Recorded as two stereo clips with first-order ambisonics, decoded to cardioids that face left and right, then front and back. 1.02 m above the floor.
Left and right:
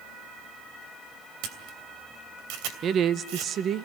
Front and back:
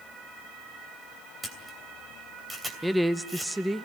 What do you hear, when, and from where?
1.4 s a camera shutter: 95° right, 2.5 m
2.8 s a woman speaking: 90° right, 0.6 m